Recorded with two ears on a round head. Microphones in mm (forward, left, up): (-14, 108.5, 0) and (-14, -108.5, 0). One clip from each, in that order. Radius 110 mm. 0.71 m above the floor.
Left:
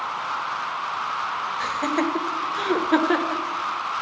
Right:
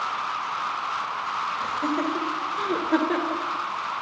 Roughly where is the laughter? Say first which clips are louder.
Left 2 dB; left.